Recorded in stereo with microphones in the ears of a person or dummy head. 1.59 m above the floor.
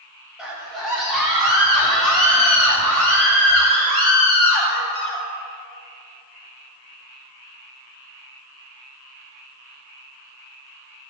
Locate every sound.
0.4 s a scream: 10° left (ahead or behind), 4.5 m; by 5.2 s 50° left (ahead or behind), 6.5 m